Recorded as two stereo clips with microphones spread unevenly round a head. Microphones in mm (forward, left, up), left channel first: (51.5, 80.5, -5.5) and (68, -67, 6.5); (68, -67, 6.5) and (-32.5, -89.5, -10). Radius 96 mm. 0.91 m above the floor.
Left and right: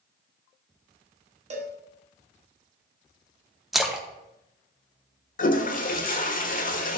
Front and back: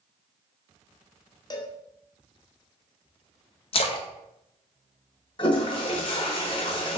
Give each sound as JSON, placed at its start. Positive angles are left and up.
{"t": 1.5, "sound": "a cowbell", "azimuth_deg": -40, "distance_m": 1.5}
{"t": 3.7, "sound": "a splash", "azimuth_deg": 10, "distance_m": 1.0}
{"t": 5.4, "sound": "a toilet flushing", "azimuth_deg": 65, "distance_m": 1.1}